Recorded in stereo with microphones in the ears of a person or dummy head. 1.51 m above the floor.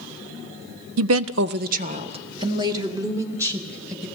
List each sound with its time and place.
1.0 s a woman speaking: 80° right, 0.5 m; by 4.1 s 10° right (ahead or behind), 2 m